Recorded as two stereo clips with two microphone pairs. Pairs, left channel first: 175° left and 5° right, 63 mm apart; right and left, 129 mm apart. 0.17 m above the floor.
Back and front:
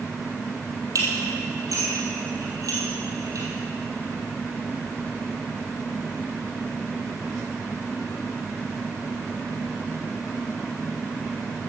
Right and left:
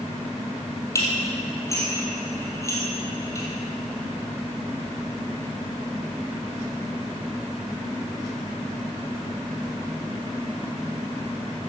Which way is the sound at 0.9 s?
25° right.